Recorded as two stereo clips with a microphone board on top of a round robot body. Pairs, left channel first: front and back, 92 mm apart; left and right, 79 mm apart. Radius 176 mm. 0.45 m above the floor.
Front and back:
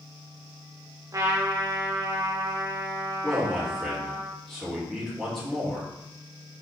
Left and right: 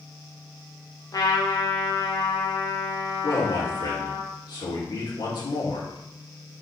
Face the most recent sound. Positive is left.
turn(degrees=85)